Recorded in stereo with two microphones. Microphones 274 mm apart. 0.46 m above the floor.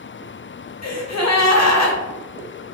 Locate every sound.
0.8 s a gasp: 70° left (ahead or behind), 0.5 m